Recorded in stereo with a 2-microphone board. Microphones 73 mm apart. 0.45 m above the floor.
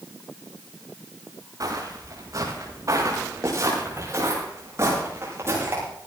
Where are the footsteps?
55° right (ahead or behind), 6 m; by 5.8 s 35° right (ahead or behind), 8 m.